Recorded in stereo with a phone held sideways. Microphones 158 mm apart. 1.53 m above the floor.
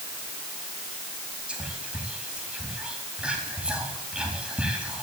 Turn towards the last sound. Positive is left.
turn(degrees=-5)  # may be behind; listen again after turning